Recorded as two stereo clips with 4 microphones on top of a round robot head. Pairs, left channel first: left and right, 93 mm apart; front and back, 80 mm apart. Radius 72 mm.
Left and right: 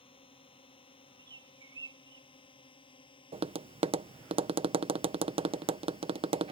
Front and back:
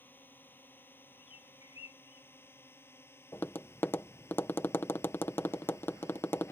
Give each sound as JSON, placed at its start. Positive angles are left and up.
{"t": 0.0, "sound": "a drone", "azimuth_deg": 65}
{"t": 1.2, "sound": "a bird", "azimuth_deg": -40}
{"t": 3.3, "sound": "tapping", "azimuth_deg": -70}